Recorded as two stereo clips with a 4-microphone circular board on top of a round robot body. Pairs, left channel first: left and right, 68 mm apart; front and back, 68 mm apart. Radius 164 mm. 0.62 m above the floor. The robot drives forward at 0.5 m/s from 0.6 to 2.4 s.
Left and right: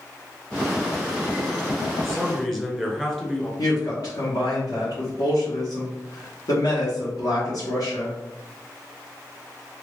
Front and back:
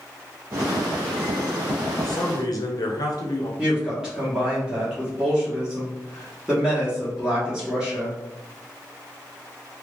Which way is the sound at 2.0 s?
5° left.